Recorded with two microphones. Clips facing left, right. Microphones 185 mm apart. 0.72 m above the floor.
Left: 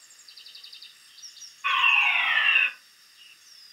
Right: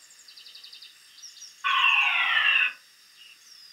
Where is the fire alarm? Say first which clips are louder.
Even; 15° left (ahead or behind), 2.5 m.